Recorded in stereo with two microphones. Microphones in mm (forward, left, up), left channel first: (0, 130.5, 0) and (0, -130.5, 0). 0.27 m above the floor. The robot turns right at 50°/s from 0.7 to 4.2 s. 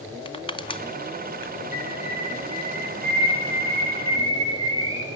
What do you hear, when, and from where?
0.2 s crushing: 20° left (ahead or behind), 1.7 m; by 1.5 s 55° left (ahead or behind), 1.7 m
1.7 s a bird: 60° right (ahead or behind), 7.5 m; by 5.2 s 65° left (ahead or behind), 7.5 m